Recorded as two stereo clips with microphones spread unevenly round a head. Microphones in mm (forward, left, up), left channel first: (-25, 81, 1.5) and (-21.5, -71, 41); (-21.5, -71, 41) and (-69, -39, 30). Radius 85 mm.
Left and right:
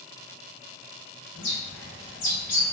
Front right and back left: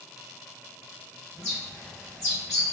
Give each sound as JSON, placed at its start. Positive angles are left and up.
{"t": 1.4, "sound": "a bird", "azimuth_deg": 65, "distance_m": 1.0}